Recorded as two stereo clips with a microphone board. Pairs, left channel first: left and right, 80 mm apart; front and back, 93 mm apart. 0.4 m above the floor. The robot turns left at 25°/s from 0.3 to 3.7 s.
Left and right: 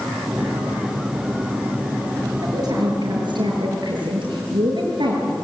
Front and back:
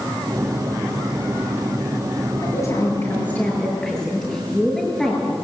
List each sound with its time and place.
2.4 s a woman speaking: 50° right, 6.5 m; by 5.3 s 85° right, 6.5 m